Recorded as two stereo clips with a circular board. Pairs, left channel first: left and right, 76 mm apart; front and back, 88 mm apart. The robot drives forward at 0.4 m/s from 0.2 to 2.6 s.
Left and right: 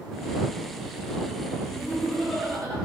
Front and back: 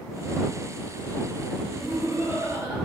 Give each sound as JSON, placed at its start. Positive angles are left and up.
{"t": 1.7, "sound": "laughter", "azimuth_deg": 110, "distance_m": 0.9}